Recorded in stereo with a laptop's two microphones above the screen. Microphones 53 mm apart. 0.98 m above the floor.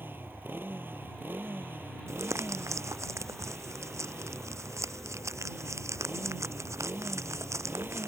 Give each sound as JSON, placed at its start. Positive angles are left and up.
{"t": 0.0, "sound": "a motorcycle", "side_deg": -40}
{"t": 2.1, "sound": "crumpling", "side_deg": -70}